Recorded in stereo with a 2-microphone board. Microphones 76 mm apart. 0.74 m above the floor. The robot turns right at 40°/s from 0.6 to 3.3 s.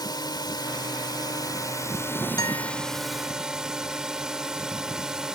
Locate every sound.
0.0 s a drone: 80° left; by 5.4 s 170° right
2.4 s a guitar: 65° left (ahead or behind); by 2.7 s 50° left (ahead or behind)